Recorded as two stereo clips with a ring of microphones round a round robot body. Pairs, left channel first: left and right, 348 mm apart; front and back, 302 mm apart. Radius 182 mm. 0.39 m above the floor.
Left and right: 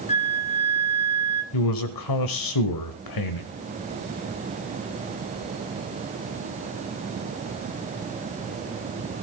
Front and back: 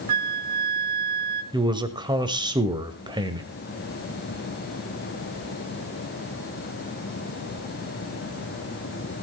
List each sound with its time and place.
0.1 s a flute: 160° left, 1.4 m
1.5 s a man speaking: 105° left, 1.7 m